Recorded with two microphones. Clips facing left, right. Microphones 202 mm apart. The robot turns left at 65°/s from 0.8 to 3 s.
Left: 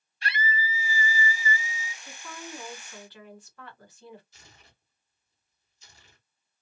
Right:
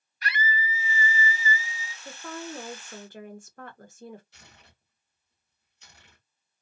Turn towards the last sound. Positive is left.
turn(degrees=-65)  # may be behind; listen again after turning